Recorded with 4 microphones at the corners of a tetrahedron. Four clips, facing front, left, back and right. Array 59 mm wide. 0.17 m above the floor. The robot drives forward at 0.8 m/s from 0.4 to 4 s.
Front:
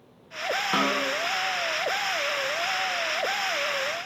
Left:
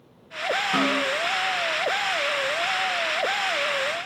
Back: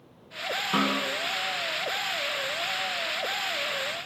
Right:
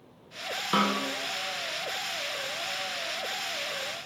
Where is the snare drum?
60° right, 3.5 m; by 1.1 s 65° right, 3 m.